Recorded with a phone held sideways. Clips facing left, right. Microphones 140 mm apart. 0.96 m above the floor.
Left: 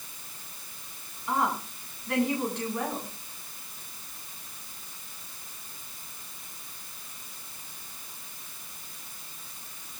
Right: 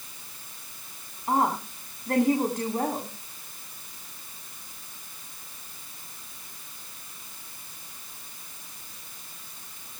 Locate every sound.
1.3 s a woman speaking: 45° right (ahead or behind), 9.5 m